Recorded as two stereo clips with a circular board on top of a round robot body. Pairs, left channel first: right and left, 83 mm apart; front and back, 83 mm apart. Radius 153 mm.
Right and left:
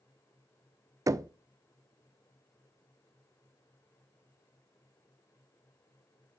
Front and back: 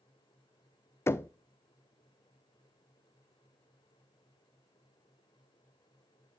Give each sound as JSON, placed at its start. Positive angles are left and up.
{"t": 1.1, "sound": "knocking", "azimuth_deg": 50, "distance_m": 0.5}